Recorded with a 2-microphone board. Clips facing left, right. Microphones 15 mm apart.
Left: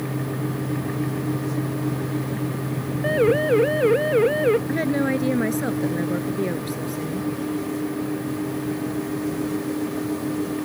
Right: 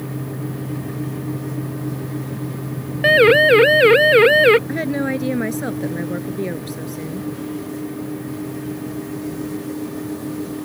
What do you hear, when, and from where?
3.0 s a siren: 80° right
4.7 s a woman speaking: 5° right (ahead or behind)